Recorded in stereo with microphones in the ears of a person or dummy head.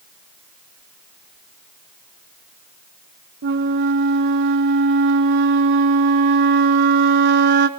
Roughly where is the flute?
Right.